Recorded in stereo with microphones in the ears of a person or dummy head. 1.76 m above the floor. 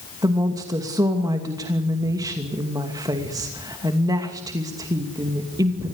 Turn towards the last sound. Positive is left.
turn(degrees=-20)  # may be behind; listen again after turning